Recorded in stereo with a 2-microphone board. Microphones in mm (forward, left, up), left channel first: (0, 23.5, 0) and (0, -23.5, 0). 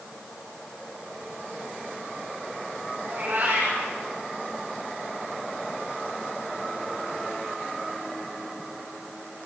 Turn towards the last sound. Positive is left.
turn(degrees=-50)  # may be behind; listen again after turning